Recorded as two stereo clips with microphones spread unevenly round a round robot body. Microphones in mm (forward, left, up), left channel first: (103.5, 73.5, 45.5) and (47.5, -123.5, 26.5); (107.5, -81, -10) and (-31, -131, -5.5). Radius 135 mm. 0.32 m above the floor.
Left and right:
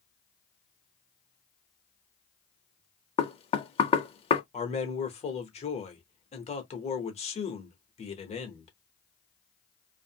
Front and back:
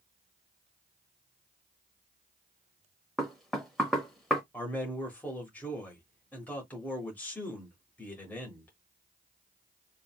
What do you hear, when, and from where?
3.2 s knocking: 105° left, 0.6 m
4.5 s a man speaking: 85° left, 0.9 m